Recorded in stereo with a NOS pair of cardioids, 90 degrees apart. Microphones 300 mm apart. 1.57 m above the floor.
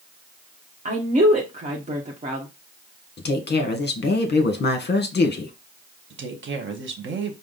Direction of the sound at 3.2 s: 35° left.